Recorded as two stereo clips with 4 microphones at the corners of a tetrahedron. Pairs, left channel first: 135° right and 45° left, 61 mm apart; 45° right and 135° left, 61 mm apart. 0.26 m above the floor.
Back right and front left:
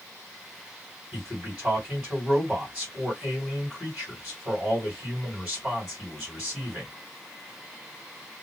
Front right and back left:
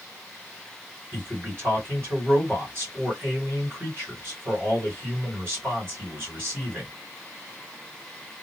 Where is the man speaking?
125° left, 2 m.